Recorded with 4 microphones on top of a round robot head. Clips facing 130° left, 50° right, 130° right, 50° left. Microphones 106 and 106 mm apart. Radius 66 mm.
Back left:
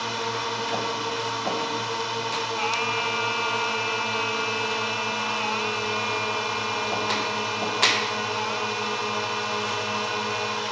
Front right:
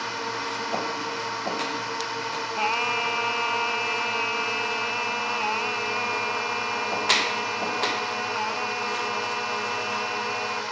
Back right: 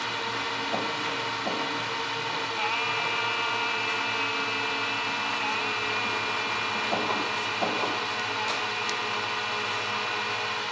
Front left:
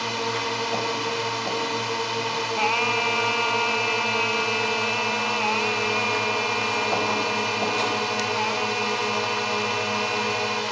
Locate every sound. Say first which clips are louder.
0.0 s a drone: back left 2 dB, front left 5 dB; 65° left
2.6 s singing: front right 4 dB, front left 8 dB; 10° left